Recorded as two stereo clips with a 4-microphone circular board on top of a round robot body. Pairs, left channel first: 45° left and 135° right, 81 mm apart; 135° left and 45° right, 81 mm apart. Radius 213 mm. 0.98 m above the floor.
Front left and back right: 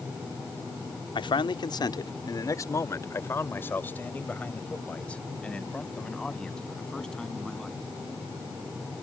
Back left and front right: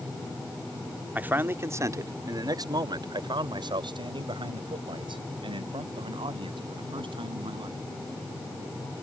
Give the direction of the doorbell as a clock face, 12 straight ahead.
I don't hear a doorbell.